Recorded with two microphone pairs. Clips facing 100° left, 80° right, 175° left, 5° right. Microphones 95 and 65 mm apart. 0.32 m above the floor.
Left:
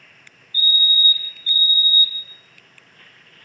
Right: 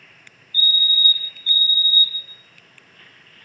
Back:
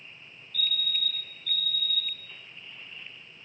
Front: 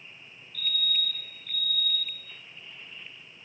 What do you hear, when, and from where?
0.5 s a fire alarm: 5° right, 1.9 m